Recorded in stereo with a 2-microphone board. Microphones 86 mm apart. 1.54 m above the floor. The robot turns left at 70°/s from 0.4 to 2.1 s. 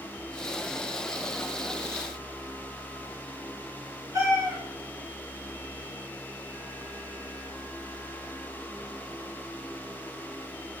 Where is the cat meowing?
40° right (ahead or behind), 5.5 m.